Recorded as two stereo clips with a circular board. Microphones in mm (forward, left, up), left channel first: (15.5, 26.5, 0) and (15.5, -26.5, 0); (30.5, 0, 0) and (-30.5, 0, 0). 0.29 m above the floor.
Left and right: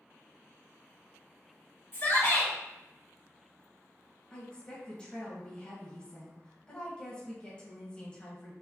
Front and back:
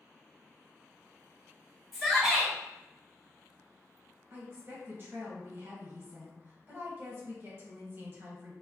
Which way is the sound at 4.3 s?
155° left.